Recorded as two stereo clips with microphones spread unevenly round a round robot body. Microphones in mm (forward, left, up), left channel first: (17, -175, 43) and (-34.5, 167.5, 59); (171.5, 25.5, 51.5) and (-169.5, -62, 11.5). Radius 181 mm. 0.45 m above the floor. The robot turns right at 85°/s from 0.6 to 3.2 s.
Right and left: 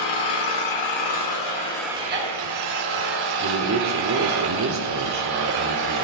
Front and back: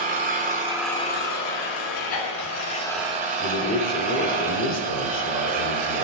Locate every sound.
0.0 s an engine running: 100° right, 3.5 m; by 6.0 s 125° left, 3.5 m
3.4 s a man speaking: 70° left, 1.7 m